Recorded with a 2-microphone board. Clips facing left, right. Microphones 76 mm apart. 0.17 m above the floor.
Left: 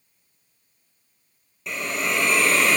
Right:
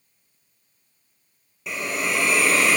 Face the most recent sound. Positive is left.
turn(degrees=-5)  # may be behind; listen again after turning